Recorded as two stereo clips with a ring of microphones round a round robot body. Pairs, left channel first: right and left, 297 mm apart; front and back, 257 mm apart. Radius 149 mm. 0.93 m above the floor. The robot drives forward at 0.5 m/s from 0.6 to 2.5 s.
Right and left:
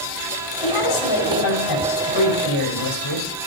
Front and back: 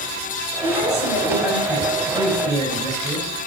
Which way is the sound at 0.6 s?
65° right.